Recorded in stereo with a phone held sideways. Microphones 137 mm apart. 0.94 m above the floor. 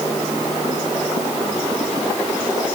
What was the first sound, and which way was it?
Only background noise.